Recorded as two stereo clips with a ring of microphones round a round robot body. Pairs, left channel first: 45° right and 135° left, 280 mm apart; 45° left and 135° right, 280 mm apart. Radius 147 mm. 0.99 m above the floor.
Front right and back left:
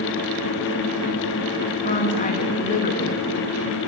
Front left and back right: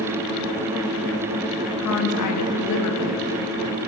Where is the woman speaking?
20° left, 1.2 m.